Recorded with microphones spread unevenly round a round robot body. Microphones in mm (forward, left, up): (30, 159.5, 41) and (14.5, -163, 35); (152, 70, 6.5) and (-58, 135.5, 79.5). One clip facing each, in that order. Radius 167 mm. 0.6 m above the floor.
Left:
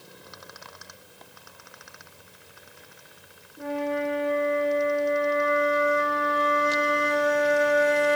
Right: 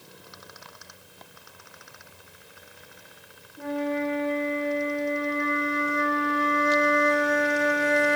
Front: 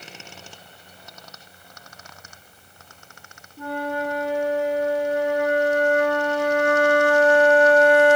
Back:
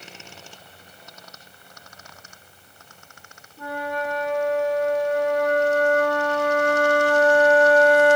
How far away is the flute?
About 1.6 m.